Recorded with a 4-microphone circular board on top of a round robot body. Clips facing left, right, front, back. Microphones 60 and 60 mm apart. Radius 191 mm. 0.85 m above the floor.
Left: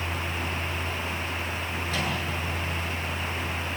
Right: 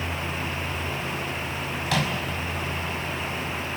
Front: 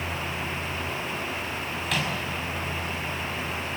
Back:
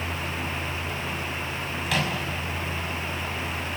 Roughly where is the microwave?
Right.